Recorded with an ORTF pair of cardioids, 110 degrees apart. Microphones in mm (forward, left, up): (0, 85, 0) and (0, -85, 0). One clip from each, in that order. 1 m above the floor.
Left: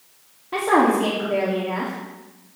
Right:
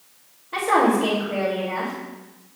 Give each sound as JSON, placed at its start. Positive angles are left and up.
{"t": 0.5, "sound": "a woman speaking", "azimuth_deg": 55, "distance_m": 2.0}